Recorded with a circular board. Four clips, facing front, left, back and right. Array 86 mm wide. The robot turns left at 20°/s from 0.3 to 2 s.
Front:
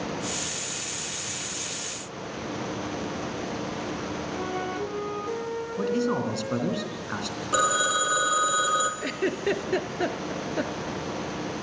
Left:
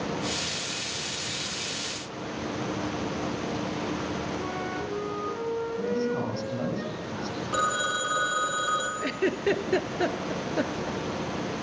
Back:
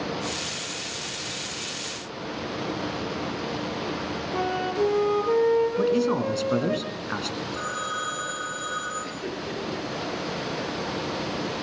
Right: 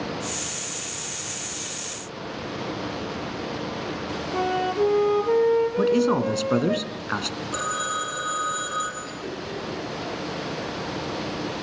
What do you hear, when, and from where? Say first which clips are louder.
4.3 s a flute: right 8 dB, back 7 dB; 120° right, 3 m
5.8 s a man speaking: right 8 dB, back 3 dB; 100° right, 3 m
7.5 s a phone ringing: left 1 dB, front 11 dB; 10° left, 5 m
9.0 s a giggle: left 7 dB, front 5 dB; 50° left, 1.8 m